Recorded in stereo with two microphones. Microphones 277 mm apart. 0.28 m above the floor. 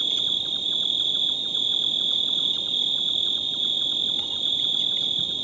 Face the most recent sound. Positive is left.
turn(degrees=-20)  # may be behind; listen again after turning